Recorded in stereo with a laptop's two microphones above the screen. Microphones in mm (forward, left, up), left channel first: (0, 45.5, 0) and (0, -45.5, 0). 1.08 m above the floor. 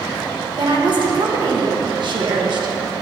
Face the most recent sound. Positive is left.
turn(degrees=-55)  # may be behind; listen again after turning